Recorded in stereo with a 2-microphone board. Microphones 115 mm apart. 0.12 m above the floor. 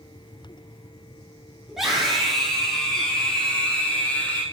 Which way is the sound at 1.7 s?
5° right (ahead or behind).